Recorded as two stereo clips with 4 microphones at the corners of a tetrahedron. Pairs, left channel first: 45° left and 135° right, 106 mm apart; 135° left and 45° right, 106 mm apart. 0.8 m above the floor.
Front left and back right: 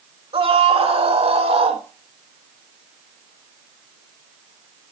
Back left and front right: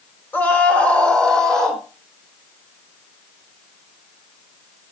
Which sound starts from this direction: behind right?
A scream, at 0.3 s.